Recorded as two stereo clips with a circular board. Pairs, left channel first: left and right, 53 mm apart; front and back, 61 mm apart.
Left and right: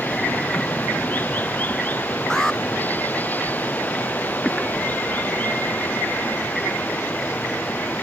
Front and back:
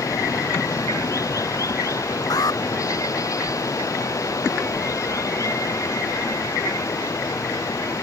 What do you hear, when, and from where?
0.0 s running water: 30° left
2.3 s an alarm: 10° left